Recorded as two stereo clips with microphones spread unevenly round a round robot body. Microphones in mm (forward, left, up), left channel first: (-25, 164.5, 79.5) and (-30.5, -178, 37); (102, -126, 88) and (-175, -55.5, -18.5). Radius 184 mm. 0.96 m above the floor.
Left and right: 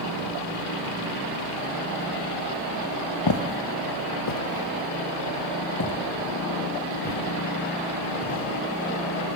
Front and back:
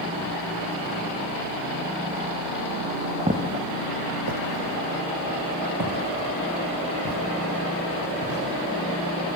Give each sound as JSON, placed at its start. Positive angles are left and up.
{"t": 3.3, "sound": "footsteps", "azimuth_deg": 80, "distance_m": 1.7}